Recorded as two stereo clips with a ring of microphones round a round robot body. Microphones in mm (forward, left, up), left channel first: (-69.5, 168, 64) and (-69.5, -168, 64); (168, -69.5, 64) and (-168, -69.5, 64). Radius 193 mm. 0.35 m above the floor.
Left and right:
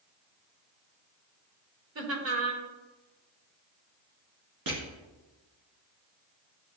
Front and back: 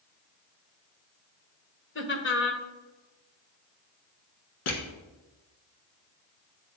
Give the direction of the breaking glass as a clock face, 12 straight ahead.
I don't hear breaking glass.